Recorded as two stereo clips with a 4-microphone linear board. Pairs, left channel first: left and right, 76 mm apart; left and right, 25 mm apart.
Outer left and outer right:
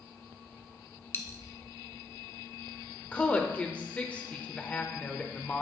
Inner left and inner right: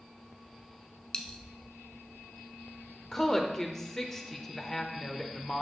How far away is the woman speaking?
About 0.8 m.